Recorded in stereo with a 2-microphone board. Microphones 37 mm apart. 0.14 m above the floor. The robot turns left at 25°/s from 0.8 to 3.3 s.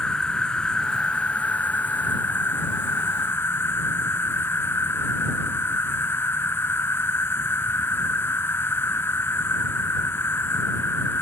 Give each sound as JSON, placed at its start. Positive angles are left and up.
{"t": 0.0, "sound": "an insect", "azimuth_deg": 155}